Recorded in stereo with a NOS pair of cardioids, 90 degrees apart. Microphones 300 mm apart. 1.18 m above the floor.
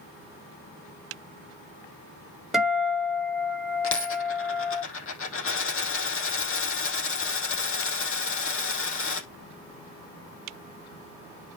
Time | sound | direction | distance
2.5 | a guitar | straight ahead | 3 m
3.8 | a dropped coin | 50° left | 4 m